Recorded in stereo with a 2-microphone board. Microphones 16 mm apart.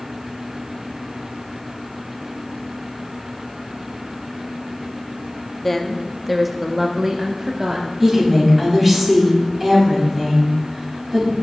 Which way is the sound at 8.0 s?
15° right (ahead or behind).